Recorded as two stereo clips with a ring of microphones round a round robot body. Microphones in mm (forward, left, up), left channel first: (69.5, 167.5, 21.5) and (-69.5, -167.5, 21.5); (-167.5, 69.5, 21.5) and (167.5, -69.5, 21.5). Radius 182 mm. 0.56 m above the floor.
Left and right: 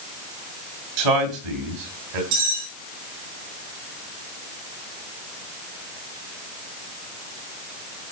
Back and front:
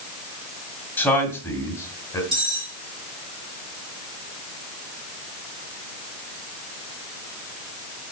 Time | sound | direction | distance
1.0 | a man speaking | 115° right | 3 m
2.3 | cutlery clinking | 100° right | 7 m